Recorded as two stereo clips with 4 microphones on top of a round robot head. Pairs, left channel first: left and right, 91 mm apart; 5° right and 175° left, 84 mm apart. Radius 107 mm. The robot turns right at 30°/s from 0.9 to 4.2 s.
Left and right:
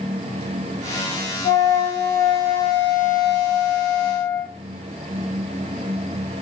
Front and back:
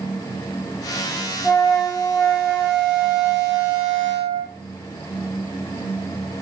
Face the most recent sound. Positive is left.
turn(degrees=130)